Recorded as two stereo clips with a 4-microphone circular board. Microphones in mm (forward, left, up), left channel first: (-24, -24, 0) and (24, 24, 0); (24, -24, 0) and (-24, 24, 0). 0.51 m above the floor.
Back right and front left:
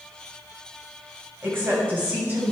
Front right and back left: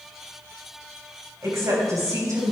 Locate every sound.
1.4 s a woman speaking: 100° left, 3.5 m; by 2.5 s 110° left, 4 m